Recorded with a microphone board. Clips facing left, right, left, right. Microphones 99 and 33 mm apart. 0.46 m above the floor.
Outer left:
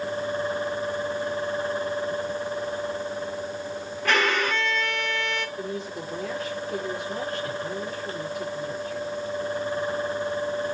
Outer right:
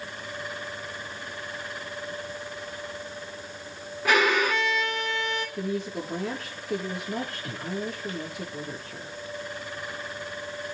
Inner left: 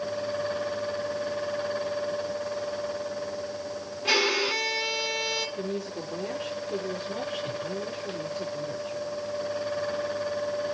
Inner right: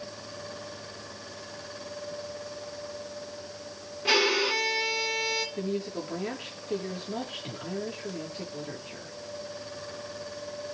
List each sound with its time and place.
4.0 s a violin: 5° right (ahead or behind), 1.5 m
5.6 s a woman speaking: 75° right (ahead or behind), 8 m